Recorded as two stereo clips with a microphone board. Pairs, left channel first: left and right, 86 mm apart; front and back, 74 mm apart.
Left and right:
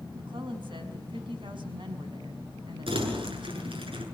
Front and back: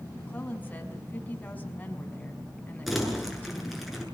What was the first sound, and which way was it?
A woman speaking, 70° right.